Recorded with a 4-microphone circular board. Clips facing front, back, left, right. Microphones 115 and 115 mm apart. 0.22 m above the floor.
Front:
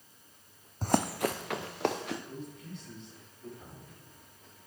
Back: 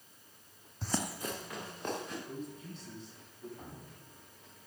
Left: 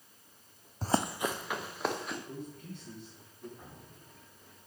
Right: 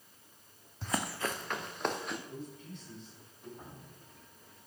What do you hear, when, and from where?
0.8 s running footsteps: 45° left, 0.5 m; by 2.2 s straight ahead, 2.5 m
2.3 s a man speaking: 120° left, 6 m
3.6 s dripping: 160° right, 6.5 m